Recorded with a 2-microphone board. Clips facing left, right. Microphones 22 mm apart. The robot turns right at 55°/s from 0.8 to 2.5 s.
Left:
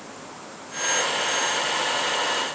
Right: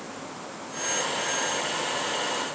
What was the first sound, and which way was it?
Only background noise.